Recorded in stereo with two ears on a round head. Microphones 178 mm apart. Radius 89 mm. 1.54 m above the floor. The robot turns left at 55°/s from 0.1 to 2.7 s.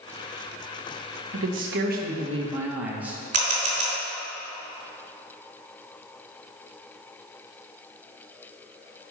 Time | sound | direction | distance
1.3 | a man speaking | 95° right | 1.5 m
3.3 | a camera shutter | 40° right (ahead or behind) | 3 m